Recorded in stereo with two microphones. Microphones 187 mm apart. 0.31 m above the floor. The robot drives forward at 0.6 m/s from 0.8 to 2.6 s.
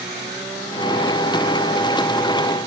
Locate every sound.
Only background noise.